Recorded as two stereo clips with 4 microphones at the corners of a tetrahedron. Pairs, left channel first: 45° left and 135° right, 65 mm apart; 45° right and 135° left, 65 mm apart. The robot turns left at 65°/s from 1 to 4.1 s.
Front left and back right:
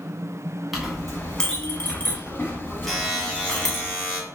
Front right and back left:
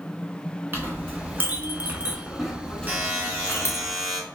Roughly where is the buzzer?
Behind left.